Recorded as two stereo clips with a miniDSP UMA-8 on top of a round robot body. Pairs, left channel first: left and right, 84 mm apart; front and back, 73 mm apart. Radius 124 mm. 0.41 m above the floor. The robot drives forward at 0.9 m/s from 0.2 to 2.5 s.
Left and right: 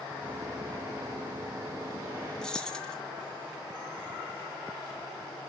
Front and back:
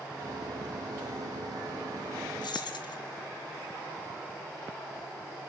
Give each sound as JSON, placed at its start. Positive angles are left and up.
{"t": 2.4, "sound": "keys jangling", "azimuth_deg": 5, "distance_m": 3.0}